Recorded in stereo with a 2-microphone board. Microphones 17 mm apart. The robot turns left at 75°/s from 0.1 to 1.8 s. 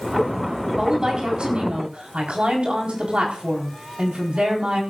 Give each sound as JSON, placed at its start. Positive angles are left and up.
{"t": 0.8, "sound": "a woman speaking", "azimuth_deg": -20, "distance_m": 4.0}